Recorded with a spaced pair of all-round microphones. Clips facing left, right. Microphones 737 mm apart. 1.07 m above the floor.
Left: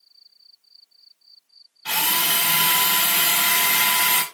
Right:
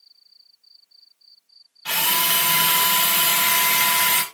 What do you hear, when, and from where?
1.9 s a drill: 10° right (ahead or behind), 0.8 m